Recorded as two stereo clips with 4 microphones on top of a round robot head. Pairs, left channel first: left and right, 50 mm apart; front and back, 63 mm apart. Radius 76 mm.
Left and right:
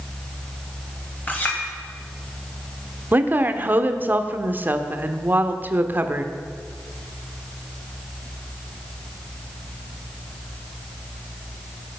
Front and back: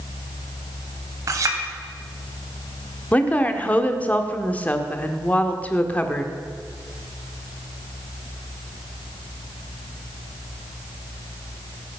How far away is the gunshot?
No gunshot in this recording.